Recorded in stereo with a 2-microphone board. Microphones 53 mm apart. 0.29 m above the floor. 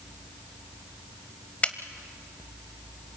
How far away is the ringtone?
No ringtone in this recording.